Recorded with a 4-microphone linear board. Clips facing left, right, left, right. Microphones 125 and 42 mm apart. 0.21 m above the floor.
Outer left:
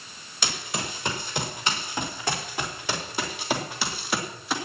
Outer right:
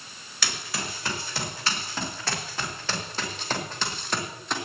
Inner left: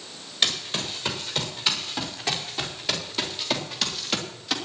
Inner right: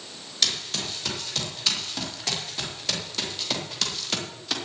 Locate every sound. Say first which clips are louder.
0.4 s running footsteps: outer left 2 dB, inner left 2 dB; 20° left (ahead or behind), 5.5 m; by 4.5 s 5° left (ahead or behind), 3.5 m